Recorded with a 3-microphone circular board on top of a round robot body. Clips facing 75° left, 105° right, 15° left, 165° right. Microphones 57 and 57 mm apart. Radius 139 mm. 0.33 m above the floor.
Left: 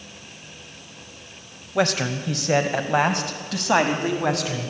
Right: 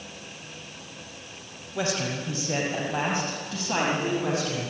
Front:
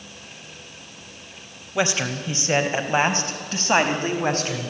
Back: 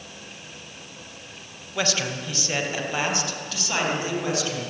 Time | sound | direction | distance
1.8 | a man speaking | 85° left | 2.5 m